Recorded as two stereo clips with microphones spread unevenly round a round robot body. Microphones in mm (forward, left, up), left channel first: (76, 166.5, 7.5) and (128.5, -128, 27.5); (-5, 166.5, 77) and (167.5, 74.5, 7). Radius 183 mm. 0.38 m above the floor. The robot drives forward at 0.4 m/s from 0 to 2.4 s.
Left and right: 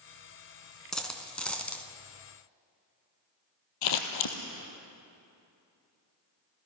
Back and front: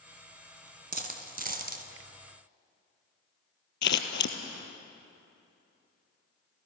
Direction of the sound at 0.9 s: 10° left.